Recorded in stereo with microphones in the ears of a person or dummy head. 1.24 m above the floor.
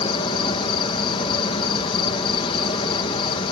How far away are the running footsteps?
No running footsteps in this recording.